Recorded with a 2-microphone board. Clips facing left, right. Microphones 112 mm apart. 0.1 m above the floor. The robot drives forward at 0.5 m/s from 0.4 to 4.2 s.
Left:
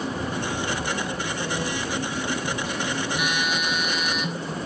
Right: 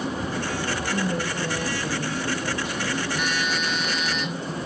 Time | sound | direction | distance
0.9 | a woman speaking | 75° right (ahead or behind) | 8 m
3.1 | a phone buzzing | 10° left (ahead or behind) | 1.8 m